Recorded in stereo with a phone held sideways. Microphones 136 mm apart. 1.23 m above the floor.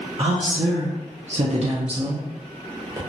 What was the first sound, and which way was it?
A woman speaking, 45° right (ahead or behind).